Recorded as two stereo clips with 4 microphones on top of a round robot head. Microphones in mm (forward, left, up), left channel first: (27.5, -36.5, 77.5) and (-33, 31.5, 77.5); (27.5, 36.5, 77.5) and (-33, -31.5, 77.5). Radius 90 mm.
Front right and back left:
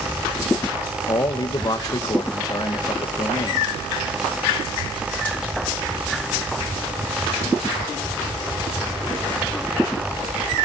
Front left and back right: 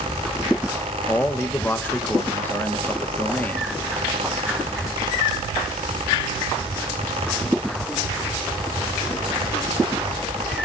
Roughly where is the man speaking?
Ahead.